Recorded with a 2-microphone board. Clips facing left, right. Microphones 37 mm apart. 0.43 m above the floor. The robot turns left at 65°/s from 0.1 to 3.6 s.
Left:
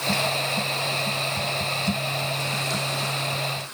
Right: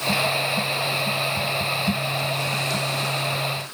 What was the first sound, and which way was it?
Only background noise.